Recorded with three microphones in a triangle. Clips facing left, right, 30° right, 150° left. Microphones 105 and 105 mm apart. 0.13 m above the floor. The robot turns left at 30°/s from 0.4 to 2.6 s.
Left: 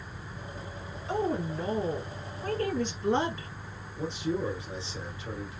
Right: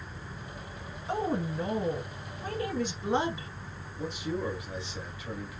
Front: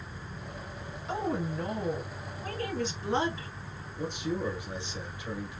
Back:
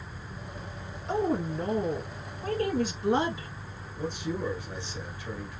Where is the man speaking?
35° left, 1.6 m.